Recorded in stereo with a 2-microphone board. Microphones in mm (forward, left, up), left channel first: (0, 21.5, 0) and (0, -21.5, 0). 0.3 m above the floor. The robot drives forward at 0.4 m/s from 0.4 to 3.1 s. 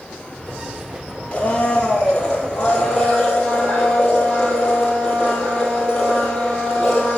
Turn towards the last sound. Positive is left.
turn(degrees=20)  # may be behind; listen again after turning